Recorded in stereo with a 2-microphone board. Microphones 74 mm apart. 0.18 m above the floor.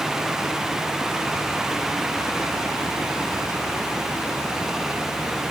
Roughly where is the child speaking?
I don't hear a child speaking.